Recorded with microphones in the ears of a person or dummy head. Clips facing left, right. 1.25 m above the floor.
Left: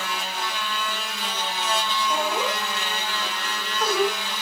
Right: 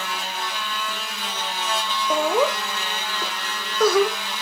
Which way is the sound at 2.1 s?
65° right (ahead or behind).